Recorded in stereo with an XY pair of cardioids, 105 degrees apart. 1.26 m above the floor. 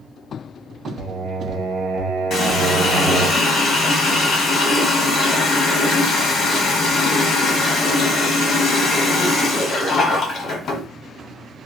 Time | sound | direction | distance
1.0 | singing | 65° right | 0.8 m
2.3 | a running tap | 60° left | 1.2 m